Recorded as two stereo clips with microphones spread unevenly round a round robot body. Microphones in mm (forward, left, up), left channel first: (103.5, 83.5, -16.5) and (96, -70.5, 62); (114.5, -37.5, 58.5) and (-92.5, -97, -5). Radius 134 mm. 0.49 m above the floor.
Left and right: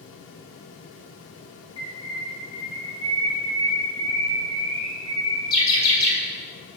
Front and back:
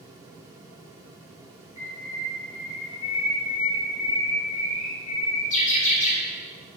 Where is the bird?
80° left, 1.2 m.